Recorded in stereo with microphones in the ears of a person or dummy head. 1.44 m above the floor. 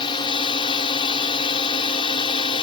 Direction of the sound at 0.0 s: 25° left (ahead or behind).